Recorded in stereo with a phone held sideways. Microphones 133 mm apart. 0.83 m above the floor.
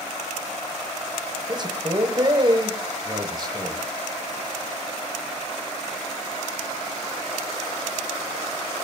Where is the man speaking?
35° right (ahead or behind), 3 m.